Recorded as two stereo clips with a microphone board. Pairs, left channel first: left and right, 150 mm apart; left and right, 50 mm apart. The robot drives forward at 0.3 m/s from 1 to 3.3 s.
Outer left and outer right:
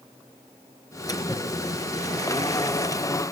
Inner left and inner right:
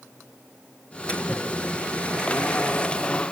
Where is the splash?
25° left (ahead or behind), 4.5 m; by 3.1 s 20° left (ahead or behind), 5 m.